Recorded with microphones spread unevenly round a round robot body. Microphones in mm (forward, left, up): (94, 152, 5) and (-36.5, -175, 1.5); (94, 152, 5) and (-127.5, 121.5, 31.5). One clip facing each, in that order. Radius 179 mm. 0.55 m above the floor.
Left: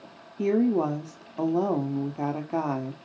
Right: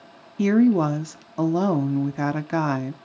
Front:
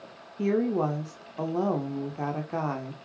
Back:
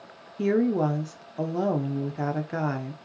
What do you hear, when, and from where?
0.4 s a woman speaking: 90° right, 0.8 m